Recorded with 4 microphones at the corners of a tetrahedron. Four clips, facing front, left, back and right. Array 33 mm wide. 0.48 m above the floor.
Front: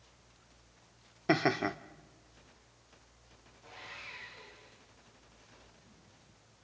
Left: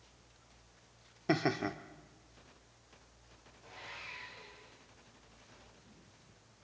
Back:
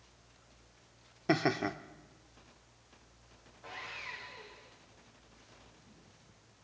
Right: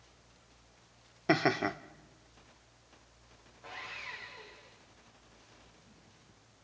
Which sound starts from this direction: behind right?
Sawing, at 3.6 s.